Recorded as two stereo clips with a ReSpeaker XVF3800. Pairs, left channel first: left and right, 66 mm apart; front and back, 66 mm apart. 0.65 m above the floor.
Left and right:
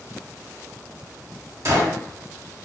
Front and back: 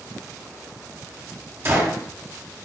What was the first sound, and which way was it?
A gunshot, 130° right.